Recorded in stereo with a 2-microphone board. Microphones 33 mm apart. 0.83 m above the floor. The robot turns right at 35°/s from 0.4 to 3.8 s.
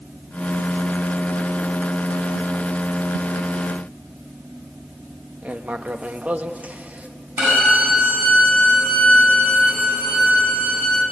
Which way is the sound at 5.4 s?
50° right (ahead or behind).